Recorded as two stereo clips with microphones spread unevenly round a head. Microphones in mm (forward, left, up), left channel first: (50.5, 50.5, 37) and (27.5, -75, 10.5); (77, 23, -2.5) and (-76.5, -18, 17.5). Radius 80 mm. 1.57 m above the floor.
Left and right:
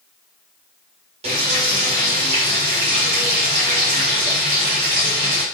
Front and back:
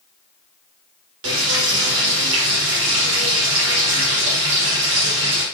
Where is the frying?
155° right, 1.7 m.